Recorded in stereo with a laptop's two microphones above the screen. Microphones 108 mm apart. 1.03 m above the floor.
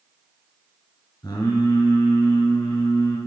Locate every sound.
1.2 s singing: 35° left (ahead or behind), 2 m